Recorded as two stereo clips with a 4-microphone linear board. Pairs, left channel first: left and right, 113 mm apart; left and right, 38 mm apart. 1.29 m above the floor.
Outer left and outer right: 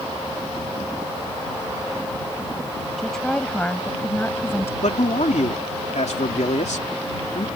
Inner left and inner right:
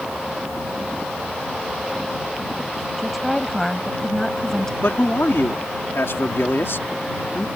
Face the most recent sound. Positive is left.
turn(degrees=85)